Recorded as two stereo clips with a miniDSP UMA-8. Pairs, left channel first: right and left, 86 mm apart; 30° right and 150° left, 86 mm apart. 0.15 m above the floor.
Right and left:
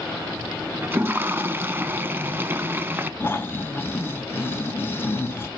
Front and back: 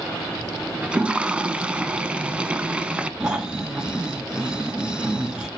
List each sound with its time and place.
0.8 s a toilet flushing: 95° left, 0.6 m
3.2 s snoring: 135° right, 0.7 m